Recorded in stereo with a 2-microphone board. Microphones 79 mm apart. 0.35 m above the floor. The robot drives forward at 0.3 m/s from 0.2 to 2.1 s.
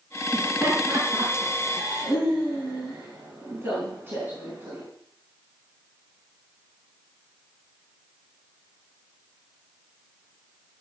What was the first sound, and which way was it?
Laughter, 30° right (ahead or behind).